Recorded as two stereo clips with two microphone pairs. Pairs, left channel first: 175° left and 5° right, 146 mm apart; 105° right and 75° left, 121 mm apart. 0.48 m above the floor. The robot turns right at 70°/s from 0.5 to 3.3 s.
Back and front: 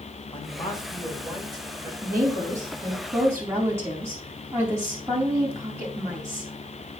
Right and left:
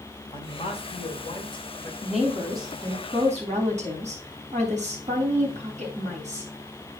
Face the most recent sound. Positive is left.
turn(degrees=65)